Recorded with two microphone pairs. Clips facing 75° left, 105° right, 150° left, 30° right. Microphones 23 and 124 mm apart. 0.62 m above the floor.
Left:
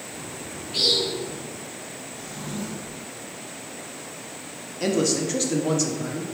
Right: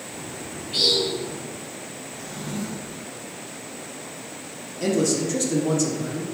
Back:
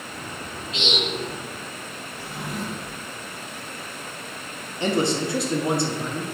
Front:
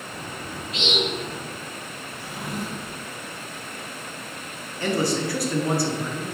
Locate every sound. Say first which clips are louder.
0.1 s a bird: right 2 dB, even; 110° right, 1.8 m
2.1 s a drawer: right 2 dB, even; 100° right, 1.4 m
4.8 s a man speaking: right 1 dB, back 1 dB; 110° left, 0.6 m